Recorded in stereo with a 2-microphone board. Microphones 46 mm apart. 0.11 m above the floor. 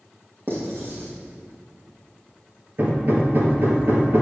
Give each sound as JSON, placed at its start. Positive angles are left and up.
{"t": 0.5, "sound": "writing", "side_deg": -50, "distance_m": 3.5}
{"t": 2.8, "sound": "hammering", "side_deg": -50, "distance_m": 2.0}